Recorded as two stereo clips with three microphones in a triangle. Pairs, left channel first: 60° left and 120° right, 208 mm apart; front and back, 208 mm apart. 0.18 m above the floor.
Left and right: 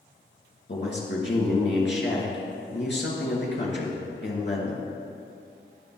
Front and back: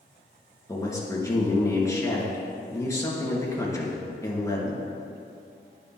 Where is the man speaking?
75° left, 3.5 m.